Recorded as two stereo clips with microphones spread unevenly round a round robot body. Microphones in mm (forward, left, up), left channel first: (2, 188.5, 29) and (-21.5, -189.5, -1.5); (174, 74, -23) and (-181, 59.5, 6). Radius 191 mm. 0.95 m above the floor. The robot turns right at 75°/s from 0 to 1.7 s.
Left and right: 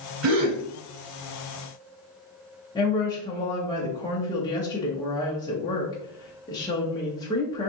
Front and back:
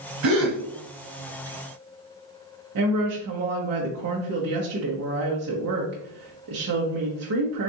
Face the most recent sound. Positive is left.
turn(degrees=165)